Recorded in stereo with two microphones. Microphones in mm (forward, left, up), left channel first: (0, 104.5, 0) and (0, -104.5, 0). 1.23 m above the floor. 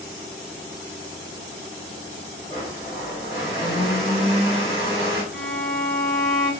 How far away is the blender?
About 2.5 m.